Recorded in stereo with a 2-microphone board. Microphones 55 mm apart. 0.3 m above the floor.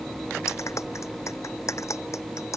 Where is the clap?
60° left (ahead or behind).